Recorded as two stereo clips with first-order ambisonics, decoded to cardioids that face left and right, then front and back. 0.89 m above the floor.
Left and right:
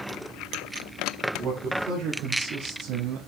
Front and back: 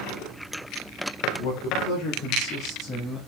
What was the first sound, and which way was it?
A man speaking, 25° right.